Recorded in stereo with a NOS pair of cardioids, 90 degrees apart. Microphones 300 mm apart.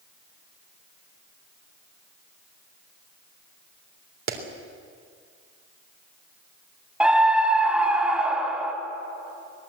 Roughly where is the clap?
Ahead right.